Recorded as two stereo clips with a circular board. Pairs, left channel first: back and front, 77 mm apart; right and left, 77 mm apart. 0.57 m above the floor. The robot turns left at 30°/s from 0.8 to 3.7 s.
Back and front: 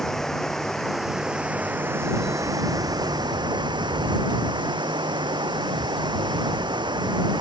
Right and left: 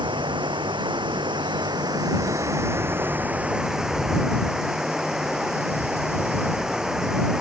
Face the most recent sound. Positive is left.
turn(degrees=10)